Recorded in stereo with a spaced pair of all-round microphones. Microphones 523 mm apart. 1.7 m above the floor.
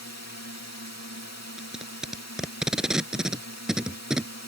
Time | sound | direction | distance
0.0 | a drone | 30° left (ahead or behind) | ?
1.6 | tape being pulled | centre (ahead or behind) | ?